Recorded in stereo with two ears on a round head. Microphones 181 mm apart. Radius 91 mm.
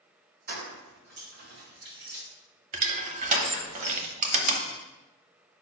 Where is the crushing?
35° right (ahead or behind), 1.0 m.